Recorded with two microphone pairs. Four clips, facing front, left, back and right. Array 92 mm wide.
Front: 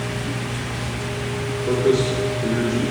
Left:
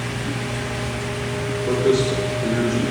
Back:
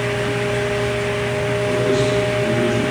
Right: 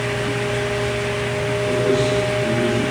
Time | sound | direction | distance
1.7 | a man speaking | 55° left | 3 m